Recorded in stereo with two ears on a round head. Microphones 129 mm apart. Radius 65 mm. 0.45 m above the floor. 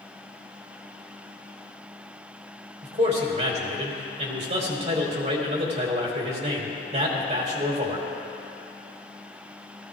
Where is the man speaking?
45° right (ahead or behind), 2.5 m.